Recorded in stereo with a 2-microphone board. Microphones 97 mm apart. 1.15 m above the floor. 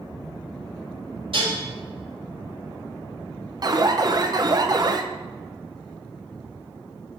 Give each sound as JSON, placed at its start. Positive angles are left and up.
{"t": 1.3, "sound": "dishes clattering", "side_deg": -65, "distance_m": 3.5}
{"t": 3.6, "sound": "an alarm", "side_deg": -45, "distance_m": 0.6}